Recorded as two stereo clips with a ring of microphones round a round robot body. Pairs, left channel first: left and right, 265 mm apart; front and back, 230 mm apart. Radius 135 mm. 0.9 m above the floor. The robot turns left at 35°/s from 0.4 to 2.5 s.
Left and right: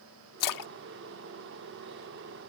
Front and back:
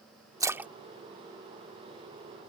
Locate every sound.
0.4 s a splash: 105° left; by 2.2 s 45° left